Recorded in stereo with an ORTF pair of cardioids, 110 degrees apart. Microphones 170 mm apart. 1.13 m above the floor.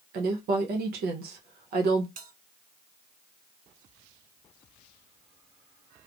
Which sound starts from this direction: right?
A woman speaking, at 0.1 s.